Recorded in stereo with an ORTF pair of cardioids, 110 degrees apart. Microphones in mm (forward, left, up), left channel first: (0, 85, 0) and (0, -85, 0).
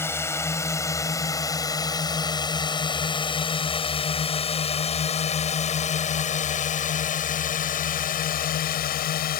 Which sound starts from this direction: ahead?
A drone, at 0.0 s.